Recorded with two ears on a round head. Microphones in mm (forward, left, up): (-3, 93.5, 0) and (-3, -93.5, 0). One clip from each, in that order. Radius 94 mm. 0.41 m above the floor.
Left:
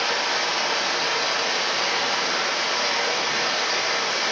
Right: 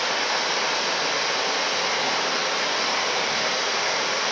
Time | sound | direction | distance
0.0 | running water | centre (ahead or behind) | 1.3 m